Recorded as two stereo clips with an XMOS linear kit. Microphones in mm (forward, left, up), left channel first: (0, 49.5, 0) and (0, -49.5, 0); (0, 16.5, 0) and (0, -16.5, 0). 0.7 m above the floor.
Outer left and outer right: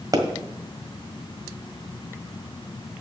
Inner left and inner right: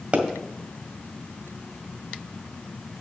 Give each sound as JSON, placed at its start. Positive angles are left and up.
{"t": 0.1, "sound": "a pop", "side_deg": -40, "distance_m": 1.7}